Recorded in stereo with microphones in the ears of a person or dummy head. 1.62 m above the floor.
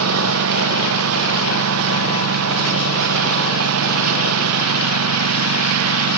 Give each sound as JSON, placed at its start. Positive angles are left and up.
{"t": 0.0, "sound": "a lawn mower", "side_deg": -85}